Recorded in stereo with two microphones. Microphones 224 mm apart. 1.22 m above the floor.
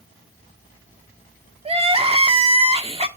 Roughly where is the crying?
Right.